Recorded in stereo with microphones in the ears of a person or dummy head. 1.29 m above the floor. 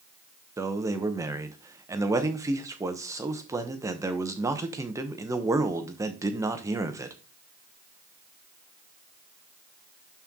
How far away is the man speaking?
About 0.9 m.